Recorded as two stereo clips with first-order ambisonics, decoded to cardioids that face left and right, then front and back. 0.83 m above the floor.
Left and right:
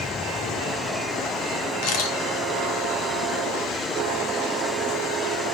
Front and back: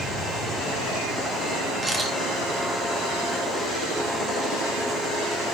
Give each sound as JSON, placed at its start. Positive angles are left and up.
{"t": 1.8, "sound": "a camera shutter", "azimuth_deg": 105, "distance_m": 2.0}